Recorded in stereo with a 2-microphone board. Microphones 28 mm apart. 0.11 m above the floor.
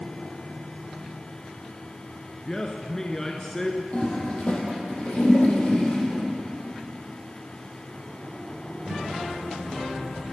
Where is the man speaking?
20° left (ahead or behind), 1.2 m.